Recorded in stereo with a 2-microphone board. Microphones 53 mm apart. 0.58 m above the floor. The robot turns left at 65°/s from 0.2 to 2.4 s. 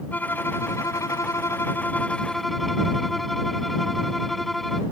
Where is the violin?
145° left; by 4.8 s 5° left.